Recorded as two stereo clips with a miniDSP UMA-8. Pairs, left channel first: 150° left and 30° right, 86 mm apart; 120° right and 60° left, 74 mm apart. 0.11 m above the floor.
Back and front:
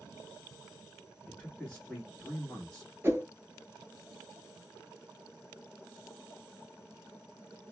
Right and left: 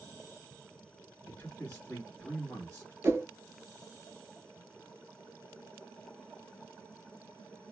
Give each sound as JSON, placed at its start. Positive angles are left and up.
{"t": 1.3, "sound": "a man speaking", "azimuth_deg": -155, "distance_m": 1.2}
{"t": 3.0, "sound": "a whoosh", "azimuth_deg": 20, "distance_m": 0.6}